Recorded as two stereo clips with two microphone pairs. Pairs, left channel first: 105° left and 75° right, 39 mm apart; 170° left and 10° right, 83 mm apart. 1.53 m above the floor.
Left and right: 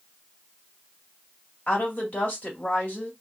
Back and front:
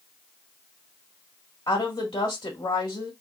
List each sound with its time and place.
1.7 s a woman speaking: 155° left, 2.0 m